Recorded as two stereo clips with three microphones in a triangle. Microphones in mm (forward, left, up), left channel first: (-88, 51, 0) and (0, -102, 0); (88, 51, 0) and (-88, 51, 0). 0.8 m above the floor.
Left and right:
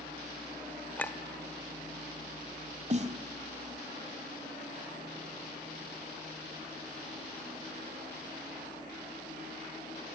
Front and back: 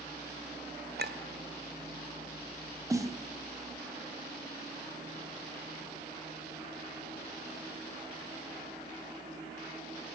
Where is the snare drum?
110° right, 1.5 m.